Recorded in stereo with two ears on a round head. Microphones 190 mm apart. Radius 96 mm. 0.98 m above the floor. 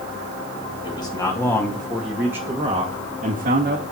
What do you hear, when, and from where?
0.8 s a man speaking: 25° left (ahead or behind), 2.5 m; by 3.8 s 50° right (ahead or behind), 1.9 m